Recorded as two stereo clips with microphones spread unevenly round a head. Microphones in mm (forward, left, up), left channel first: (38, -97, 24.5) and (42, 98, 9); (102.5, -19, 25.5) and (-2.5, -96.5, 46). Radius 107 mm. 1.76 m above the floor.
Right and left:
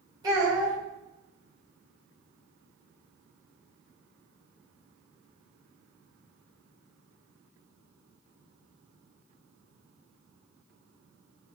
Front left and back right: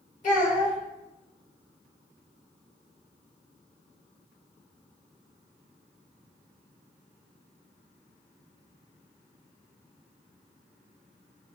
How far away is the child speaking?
About 1.8 m.